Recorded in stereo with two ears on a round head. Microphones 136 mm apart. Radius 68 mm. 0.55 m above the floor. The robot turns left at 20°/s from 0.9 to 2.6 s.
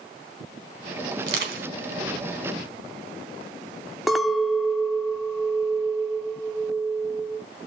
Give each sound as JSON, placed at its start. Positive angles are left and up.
{"t": 1.2, "sound": "crushing", "side_deg": -80, "distance_m": 3.5}
{"t": 4.1, "sound": "a clink", "side_deg": 0, "distance_m": 0.7}